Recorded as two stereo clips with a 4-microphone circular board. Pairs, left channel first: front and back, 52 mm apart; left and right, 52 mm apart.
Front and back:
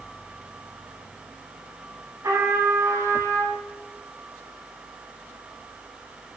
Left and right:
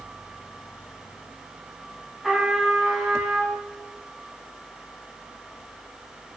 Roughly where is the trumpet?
Behind.